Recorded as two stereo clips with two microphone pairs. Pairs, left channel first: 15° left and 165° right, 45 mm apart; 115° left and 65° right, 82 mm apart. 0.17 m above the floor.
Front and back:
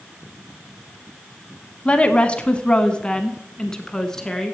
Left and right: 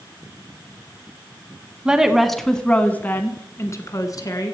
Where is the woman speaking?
5° left, 1.1 m; by 4.5 s 95° left, 1.7 m.